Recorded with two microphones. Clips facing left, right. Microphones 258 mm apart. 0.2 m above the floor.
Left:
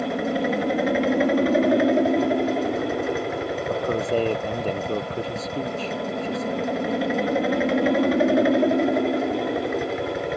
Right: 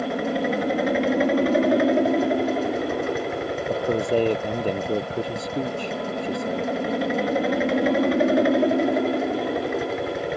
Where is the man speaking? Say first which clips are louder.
Right 2 dB; 15° right (ahead or behind).